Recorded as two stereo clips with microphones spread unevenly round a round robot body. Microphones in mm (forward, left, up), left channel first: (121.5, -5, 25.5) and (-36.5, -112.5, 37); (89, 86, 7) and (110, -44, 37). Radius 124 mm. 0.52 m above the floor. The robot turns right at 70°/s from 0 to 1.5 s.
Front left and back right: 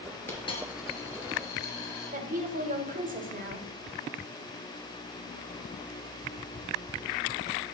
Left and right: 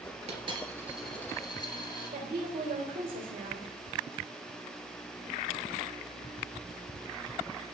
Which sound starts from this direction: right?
A woman speaking, at 2.1 s.